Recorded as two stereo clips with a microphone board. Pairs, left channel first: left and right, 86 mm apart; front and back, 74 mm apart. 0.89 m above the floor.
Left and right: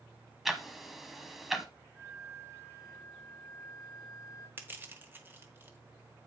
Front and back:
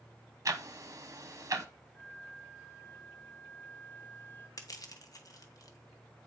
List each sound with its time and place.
0.5 s ticking: 175° right, 1.0 m
1.9 s a flute: 55° left, 1.2 m
4.6 s crushing: 25° right, 1.1 m